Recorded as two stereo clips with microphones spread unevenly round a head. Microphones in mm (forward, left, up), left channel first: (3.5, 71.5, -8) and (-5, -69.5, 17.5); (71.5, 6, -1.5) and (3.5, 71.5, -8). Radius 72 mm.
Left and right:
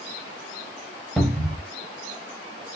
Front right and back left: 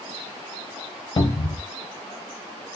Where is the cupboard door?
10° right, 0.8 m.